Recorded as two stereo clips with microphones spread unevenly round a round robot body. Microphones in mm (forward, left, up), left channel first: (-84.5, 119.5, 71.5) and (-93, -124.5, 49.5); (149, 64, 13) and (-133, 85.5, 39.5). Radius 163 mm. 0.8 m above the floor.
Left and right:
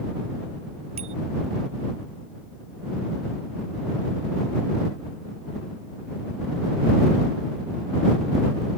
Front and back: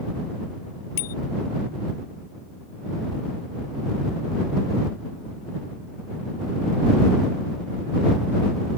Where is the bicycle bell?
20° right.